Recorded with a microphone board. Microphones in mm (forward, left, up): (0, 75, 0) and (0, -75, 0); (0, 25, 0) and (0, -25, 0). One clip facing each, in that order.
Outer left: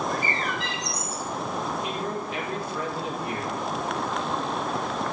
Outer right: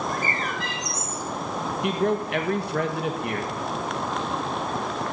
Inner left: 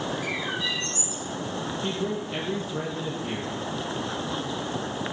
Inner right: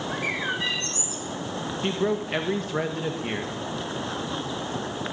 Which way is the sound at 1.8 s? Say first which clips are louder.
Outer right 6 dB, inner right 7 dB; 70° right (ahead or behind).